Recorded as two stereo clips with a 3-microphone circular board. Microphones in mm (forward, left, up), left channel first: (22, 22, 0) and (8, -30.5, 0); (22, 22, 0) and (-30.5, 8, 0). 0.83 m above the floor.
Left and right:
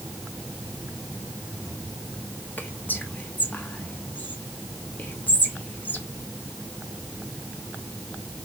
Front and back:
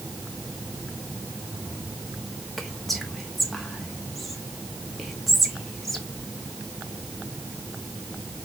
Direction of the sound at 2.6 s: 100° left.